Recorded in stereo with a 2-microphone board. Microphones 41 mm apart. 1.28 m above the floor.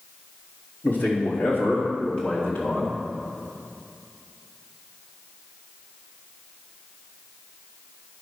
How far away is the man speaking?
About 3 m.